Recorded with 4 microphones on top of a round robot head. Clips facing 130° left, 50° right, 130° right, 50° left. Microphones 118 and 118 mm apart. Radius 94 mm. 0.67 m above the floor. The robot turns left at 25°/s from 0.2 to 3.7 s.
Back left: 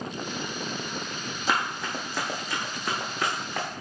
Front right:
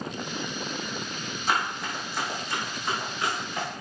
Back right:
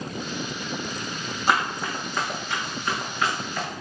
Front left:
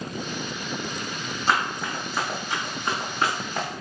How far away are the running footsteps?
About 1.5 m.